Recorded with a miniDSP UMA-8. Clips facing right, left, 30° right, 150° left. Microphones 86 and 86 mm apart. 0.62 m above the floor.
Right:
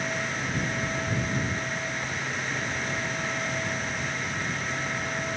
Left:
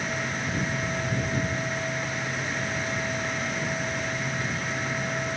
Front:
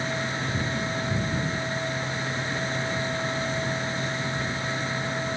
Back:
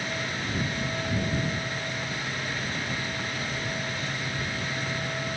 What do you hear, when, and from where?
Only background noise.